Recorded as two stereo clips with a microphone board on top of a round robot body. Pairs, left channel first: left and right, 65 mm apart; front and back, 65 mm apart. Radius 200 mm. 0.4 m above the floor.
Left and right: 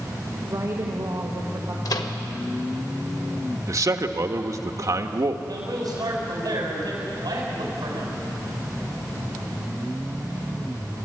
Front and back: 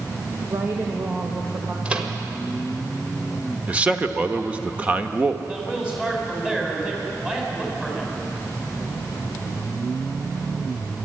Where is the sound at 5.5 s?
105° right, 5 m.